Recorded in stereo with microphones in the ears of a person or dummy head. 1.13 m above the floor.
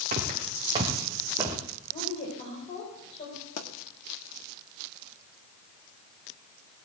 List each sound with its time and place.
0.1 s footsteps: 40° right (ahead or behind), 3 m; by 1.6 s 15° right (ahead or behind), 3 m
1.9 s a woman speaking: 35° left (ahead or behind), 5 m
3.6 s a pop: 50° left (ahead or behind), 1.5 m